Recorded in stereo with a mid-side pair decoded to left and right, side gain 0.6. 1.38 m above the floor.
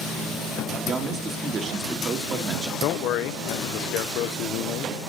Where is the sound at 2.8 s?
65° left, 0.6 m.